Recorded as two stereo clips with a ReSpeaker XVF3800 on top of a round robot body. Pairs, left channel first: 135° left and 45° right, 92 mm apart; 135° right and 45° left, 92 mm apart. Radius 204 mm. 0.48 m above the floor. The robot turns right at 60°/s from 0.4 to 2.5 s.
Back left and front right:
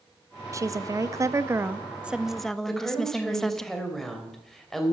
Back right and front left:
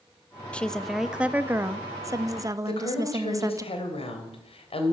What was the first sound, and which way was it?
A woman speaking, 65° right.